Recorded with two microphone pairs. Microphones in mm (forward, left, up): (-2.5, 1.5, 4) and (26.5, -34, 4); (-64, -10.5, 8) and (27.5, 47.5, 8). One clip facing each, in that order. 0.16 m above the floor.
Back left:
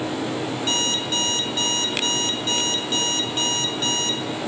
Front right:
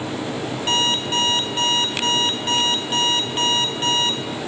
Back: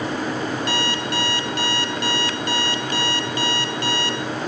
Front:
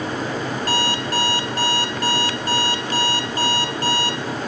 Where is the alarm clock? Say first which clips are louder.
Front right 6 dB, front 2 dB; 5° right, 0.9 m.